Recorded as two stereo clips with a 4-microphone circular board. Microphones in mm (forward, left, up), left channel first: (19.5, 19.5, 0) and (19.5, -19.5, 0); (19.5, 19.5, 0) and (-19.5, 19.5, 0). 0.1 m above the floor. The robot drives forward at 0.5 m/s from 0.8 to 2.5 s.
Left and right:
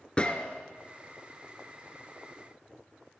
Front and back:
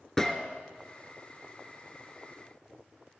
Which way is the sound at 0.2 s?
65° left.